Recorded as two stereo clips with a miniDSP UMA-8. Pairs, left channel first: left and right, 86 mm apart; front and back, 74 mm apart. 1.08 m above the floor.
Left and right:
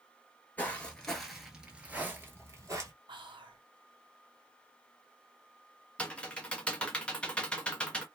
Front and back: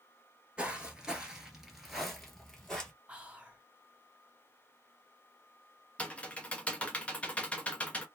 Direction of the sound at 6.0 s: 35° left.